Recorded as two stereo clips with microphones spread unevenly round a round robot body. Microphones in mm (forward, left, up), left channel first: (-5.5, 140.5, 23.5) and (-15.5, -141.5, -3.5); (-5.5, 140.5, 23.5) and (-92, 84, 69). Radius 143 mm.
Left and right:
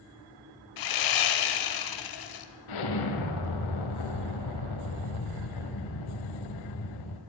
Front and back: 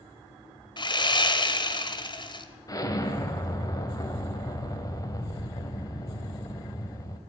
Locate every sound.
0.8 s sawing: 75° left, 1.1 m
2.7 s an explosion: 85° left, 1.7 m